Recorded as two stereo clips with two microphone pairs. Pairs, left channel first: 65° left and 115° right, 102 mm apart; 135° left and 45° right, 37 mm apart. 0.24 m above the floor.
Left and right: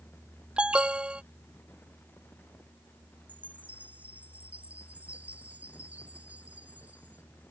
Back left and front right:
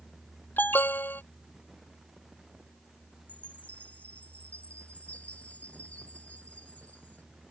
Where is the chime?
175° left.